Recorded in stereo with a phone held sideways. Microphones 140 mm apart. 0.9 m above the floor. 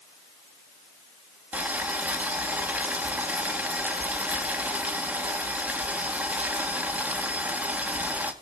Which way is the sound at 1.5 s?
10° right (ahead or behind).